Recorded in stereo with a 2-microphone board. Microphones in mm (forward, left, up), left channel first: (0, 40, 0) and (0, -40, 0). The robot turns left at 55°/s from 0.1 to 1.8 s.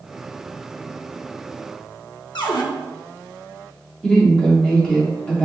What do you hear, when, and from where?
2.4 s a cupboard door: 70° left (ahead or behind), 0.7 m
4.0 s a woman speaking: 15° left (ahead or behind), 1.5 m